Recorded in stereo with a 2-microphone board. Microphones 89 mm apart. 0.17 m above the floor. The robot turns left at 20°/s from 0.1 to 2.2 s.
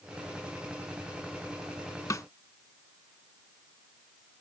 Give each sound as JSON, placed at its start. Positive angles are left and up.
{"t": 2.1, "sound": "a snare drum", "side_deg": 40}